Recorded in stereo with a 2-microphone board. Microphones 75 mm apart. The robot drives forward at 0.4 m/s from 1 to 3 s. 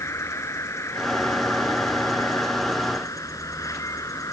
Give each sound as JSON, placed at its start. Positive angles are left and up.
{"t": 0.0, "sound": "an insect", "side_deg": 40}